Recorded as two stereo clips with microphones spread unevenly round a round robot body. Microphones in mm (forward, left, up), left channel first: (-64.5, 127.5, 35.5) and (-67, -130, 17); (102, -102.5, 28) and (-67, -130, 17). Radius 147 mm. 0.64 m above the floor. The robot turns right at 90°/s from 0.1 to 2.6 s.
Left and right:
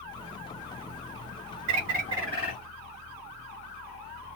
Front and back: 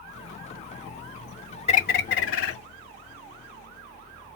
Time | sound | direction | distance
1.7 | a bird | 55° right | 0.5 m